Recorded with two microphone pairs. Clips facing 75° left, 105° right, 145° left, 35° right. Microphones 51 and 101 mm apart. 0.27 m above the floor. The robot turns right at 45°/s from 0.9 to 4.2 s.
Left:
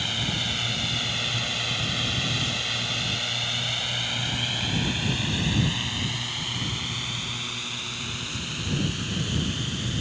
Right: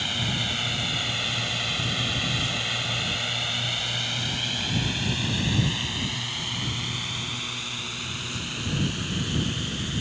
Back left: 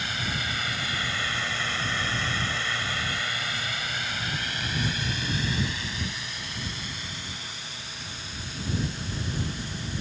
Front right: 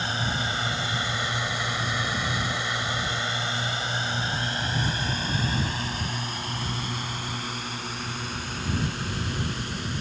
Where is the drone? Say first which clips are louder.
Even, front right 4 dB; 20° right; by 10.0 s 25° right.